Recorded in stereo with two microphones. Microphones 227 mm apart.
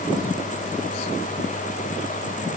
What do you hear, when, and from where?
Only background noise.